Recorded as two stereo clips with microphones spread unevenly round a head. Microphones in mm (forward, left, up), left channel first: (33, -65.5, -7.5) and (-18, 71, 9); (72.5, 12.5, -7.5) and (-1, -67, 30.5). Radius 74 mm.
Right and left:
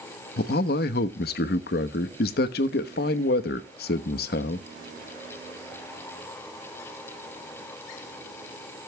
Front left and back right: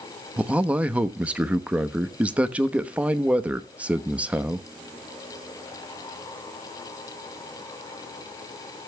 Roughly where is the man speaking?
Ahead right.